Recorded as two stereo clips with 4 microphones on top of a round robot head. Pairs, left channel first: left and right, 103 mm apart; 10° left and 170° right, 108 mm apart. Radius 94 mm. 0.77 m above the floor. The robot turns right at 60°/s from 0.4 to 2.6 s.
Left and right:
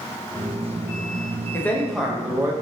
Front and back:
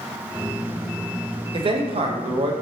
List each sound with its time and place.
1.5 s a man speaking: 155° left, 0.6 m; by 2.5 s 145° right, 0.6 m